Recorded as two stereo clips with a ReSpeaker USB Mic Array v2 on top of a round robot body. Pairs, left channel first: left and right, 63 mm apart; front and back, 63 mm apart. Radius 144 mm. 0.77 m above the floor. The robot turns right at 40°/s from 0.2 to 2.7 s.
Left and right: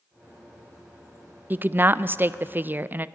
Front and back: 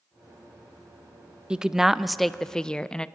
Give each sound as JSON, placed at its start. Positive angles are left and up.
{"t": 1.5, "sound": "a woman speaking", "azimuth_deg": -115, "distance_m": 0.7}